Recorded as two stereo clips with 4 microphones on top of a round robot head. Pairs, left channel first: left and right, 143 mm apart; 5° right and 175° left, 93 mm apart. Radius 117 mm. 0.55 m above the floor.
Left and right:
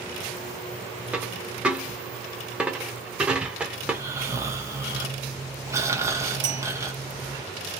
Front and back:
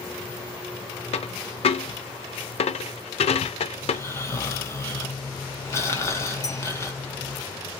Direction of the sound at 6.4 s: 60° right.